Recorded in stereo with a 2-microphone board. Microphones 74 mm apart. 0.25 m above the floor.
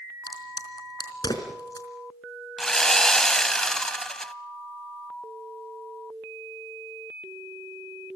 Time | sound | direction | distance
0.3 | a crack | 65° left (ahead or behind) | 3.5 m
2.6 | sawing | 5° left (ahead or behind) | 0.8 m